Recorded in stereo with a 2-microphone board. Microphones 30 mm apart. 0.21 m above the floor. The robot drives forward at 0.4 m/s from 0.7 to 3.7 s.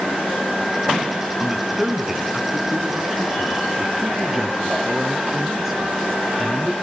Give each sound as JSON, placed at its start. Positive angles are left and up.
{"t": 1.4, "sound": "a man speaking", "side_deg": -10, "distance_m": 1.7}